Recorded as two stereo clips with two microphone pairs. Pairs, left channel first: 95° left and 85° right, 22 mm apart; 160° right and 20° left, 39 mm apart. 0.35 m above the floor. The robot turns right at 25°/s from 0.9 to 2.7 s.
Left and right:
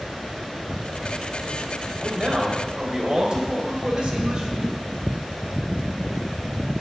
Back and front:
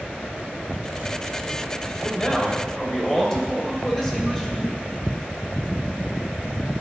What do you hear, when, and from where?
2.0 s a man speaking: 110° right, 1.2 m; by 4.7 s 90° right, 1.2 m